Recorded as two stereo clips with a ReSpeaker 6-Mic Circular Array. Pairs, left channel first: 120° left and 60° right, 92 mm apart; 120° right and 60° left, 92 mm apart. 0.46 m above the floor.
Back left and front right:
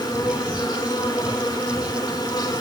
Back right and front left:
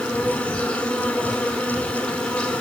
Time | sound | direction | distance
0.0 | an insect | 165° left | 3 m